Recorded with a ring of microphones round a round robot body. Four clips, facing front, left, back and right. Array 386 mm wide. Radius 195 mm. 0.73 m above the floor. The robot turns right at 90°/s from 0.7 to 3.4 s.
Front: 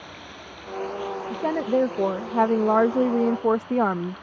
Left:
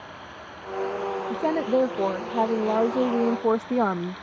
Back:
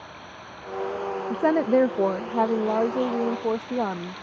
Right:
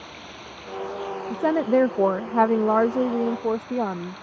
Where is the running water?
60° right; by 4.2 s straight behind.